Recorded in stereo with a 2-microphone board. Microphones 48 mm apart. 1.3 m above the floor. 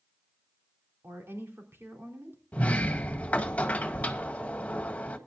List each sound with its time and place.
1.0 s a woman speaking: 50° right (ahead or behind), 3.5 m
2.5 s a sliding door: 25° left (ahead or behind), 1.9 m